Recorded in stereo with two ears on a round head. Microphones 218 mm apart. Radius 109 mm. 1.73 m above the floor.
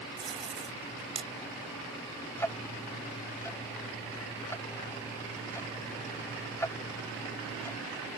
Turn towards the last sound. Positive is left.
turn(degrees=10)  # may be behind; listen again after turning